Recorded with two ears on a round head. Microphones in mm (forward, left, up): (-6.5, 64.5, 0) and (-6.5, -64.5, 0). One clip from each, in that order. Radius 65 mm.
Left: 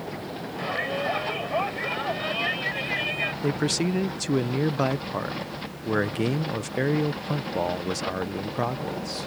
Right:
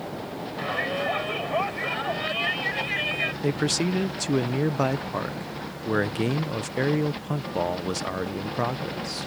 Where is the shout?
10° right (ahead or behind).